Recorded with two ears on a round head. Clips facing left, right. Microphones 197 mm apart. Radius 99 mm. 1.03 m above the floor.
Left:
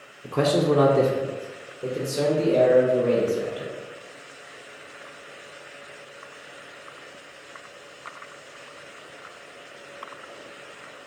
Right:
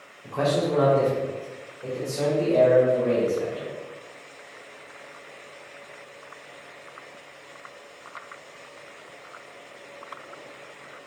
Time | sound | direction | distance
0.2 | a man speaking | 45° left (ahead or behind) | 0.6 m